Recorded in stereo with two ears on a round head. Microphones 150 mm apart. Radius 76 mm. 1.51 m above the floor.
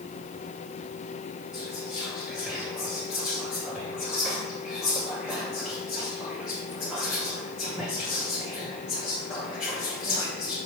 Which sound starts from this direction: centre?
Whispering, at 1.5 s.